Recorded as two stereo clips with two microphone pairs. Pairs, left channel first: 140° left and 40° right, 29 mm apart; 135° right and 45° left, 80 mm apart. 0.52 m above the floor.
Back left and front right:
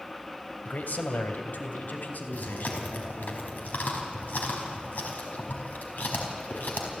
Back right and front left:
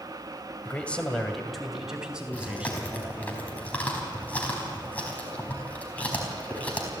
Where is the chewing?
155° left, 4.5 m.